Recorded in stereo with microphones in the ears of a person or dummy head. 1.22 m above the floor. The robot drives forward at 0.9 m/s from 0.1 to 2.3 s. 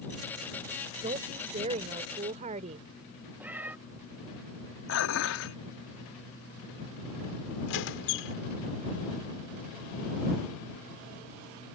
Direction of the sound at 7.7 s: 60° left (ahead or behind).